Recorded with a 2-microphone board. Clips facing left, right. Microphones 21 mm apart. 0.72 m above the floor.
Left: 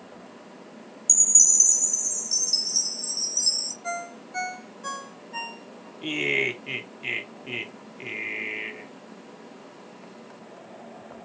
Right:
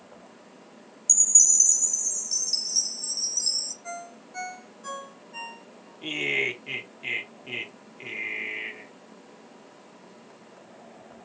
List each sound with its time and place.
1.1 s a chime: 20° left (ahead or behind), 0.9 m
3.8 s a ringtone: 45° left (ahead or behind), 0.7 m
6.0 s laughter: 5° left (ahead or behind), 0.9 m